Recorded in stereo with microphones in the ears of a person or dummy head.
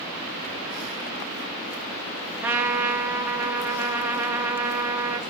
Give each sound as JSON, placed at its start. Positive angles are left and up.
{"t": 2.4, "sound": "a trumpet", "side_deg": -10, "distance_m": 0.6}